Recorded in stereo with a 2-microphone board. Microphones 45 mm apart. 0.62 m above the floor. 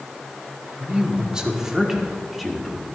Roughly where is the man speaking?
Right.